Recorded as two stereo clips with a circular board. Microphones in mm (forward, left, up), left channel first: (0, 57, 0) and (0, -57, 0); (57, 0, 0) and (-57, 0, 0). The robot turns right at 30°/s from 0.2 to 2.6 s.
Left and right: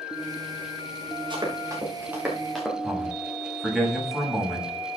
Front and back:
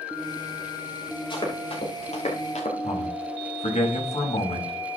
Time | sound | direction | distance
1.3 | running footsteps | 45° right | 6.5 m
2.8 | a man speaking | straight ahead | 7 m